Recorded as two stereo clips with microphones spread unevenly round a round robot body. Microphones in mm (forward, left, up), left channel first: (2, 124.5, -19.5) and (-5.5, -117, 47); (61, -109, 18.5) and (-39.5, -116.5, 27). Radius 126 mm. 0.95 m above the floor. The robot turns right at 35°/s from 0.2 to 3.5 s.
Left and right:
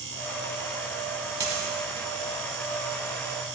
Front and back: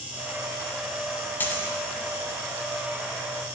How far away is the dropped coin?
About 0.9 m.